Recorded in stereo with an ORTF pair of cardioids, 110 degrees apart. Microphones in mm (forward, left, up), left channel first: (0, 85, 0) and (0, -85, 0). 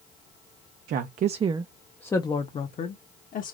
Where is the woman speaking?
60° right, 0.6 m; by 3.5 s 55° left, 1.2 m.